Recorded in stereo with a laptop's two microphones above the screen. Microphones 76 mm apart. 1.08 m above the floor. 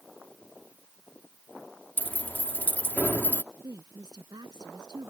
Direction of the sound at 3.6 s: 70° right (ahead or behind).